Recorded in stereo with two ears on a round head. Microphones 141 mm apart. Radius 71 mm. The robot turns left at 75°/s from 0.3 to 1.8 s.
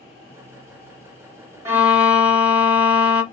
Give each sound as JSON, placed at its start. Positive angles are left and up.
{"t": 1.6, "sound": "a violin", "side_deg": -20, "distance_m": 0.5}